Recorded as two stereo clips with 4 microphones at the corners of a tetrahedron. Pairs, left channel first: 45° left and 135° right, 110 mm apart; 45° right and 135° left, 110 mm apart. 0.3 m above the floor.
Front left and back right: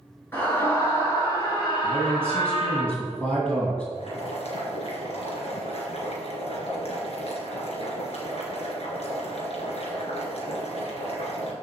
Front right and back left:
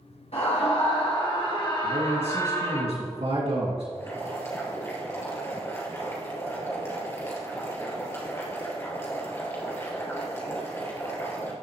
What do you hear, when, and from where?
0.3 s a scream: 25° right, 4 m; by 2.8 s 15° left, 4 m
1.8 s a man speaking: 125° left, 2 m
3.9 s boiling: 20° left, 3 m